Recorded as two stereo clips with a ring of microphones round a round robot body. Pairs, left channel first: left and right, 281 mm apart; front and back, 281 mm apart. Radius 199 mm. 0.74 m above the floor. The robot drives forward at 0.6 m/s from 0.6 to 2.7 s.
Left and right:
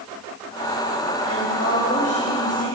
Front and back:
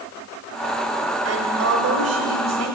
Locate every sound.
1.2 s a woman speaking: 150° left, 3 m; by 2.8 s 155° left, 3.5 m